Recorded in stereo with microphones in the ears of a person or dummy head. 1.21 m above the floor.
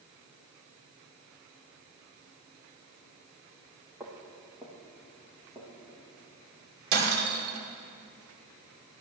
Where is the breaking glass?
60° right (ahead or behind), 1.9 m.